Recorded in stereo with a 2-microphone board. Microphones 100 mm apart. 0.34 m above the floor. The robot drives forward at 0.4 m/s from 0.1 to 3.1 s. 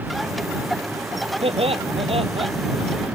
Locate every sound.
1.4 s laughter: 80° right; by 2.5 s 75° right (ahead or behind)